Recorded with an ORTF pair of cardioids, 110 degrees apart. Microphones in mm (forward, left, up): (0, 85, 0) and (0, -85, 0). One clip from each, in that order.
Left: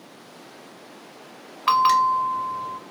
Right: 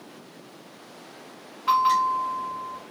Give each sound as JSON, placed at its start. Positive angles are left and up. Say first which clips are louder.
{"t": 1.7, "sound": "a bell", "louder": "left 3 dB", "azimuth_deg": 45, "distance_m": 0.6}